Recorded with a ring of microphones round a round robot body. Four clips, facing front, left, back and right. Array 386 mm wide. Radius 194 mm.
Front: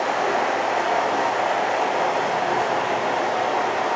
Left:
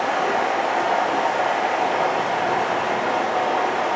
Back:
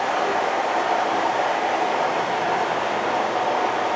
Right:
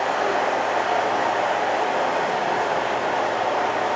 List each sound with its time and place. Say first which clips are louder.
0.0 s running water: left 1 dB, even; 95° left, 0.8 m